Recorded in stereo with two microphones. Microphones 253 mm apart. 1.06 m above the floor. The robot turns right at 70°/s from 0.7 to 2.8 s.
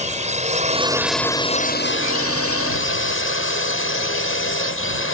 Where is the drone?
30° right; by 5.2 s 115° left.